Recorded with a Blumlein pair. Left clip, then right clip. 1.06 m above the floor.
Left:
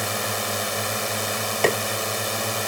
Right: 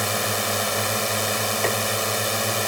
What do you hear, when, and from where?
0.0 s a drone: 5° right
1.6 s tapping: 20° left